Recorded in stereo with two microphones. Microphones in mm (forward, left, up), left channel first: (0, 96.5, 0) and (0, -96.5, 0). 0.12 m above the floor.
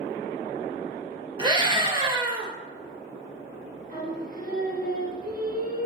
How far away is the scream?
About 2.5 m.